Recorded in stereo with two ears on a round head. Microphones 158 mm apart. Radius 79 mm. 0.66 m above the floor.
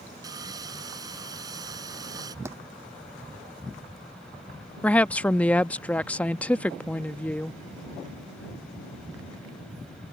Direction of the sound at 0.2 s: 20° right (ahead or behind).